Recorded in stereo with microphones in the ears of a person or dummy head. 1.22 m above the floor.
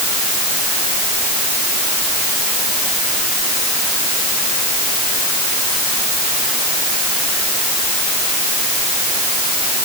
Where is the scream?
No scream in this recording.